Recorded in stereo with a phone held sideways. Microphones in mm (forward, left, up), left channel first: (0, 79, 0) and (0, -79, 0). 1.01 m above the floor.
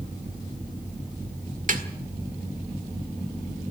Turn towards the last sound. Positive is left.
turn(degrees=-55)  # may be behind; listen again after turning